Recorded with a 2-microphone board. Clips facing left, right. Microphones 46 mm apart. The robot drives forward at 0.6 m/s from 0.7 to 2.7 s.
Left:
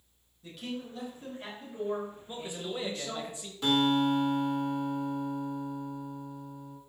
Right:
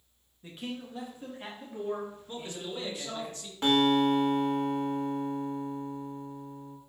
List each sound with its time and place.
0.4 s a man speaking: 25° right (ahead or behind), 1.3 m; by 3.3 s 15° right (ahead or behind), 2.5 m
2.3 s a man speaking: 15° left (ahead or behind), 0.8 m
3.6 s a guitar: 40° right (ahead or behind), 1.5 m